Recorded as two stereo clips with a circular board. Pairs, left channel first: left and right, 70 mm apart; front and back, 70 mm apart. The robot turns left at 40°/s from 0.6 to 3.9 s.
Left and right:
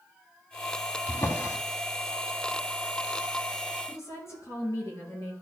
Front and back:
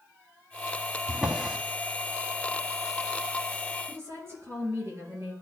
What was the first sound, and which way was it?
A drawer, 115° left.